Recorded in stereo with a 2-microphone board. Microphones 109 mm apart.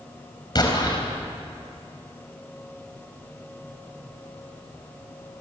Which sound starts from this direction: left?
An explosion, at 0.6 s.